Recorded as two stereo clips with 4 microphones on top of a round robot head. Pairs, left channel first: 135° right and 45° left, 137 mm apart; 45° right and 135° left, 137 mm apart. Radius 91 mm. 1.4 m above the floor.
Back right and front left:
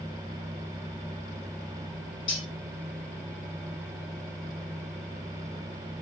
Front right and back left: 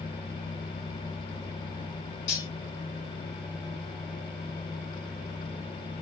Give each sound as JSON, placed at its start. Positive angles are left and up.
{"t": 2.3, "sound": "cutlery clinking", "azimuth_deg": -80, "distance_m": 1.7}